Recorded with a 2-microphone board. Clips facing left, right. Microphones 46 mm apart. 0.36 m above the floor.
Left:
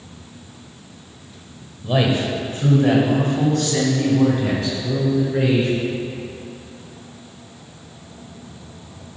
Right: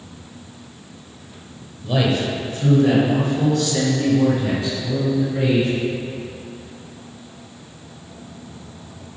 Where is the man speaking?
15° left (ahead or behind), 1.2 m; by 5.7 s 50° left (ahead or behind), 4 m.